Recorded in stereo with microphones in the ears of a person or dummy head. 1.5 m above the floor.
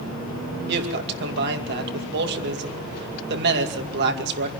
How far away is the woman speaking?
About 2.5 m.